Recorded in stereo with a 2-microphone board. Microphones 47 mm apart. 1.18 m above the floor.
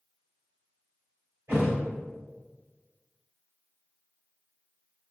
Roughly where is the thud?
Right.